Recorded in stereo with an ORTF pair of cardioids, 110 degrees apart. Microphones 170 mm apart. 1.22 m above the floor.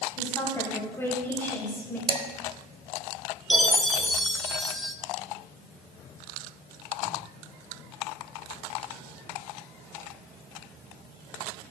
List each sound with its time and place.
0.2 s a woman speaking: 15° left, 6.5 m; by 2.0 s 10° left, 4.5 m
2.1 s dishes clattering: 30° right, 1.6 m
3.5 s a chime: straight ahead, 1.1 m